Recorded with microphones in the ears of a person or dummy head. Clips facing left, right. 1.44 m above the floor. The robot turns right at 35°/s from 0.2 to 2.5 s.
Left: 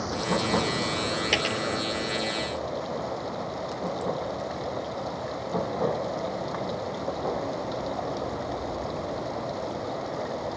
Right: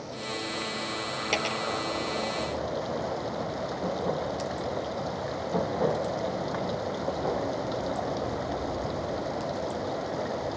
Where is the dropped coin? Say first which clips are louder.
Left 2 dB; 10° left (ahead or behind); by 1.6 s centre (ahead or behind).